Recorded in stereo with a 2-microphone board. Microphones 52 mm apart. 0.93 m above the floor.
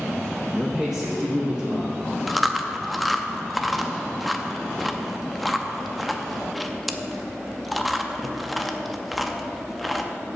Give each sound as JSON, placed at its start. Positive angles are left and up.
{"t": 0.5, "sound": "a man speaking", "side_deg": 10, "distance_m": 0.6}
{"t": 2.3, "sound": "chewing", "side_deg": 0, "distance_m": 0.5}